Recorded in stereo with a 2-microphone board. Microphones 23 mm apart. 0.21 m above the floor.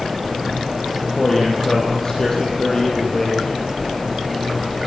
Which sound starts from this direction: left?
A man speaking, at 1.2 s.